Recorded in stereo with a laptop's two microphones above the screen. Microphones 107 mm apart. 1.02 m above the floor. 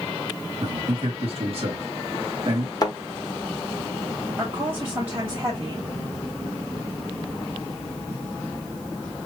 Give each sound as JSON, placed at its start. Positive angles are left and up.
{"t": 0.6, "sound": "a man speaking", "side_deg": -65, "distance_m": 2.0}
{"t": 2.8, "sound": "a thud", "side_deg": 35, "distance_m": 1.0}
{"t": 4.4, "sound": "a woman speaking", "side_deg": -30, "distance_m": 2.0}